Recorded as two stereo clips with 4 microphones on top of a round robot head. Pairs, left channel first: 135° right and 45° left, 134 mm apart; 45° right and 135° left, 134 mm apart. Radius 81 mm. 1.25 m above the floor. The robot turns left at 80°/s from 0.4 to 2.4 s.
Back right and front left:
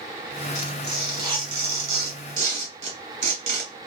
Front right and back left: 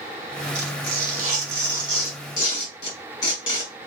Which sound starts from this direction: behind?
Tearing paper, at 0.6 s.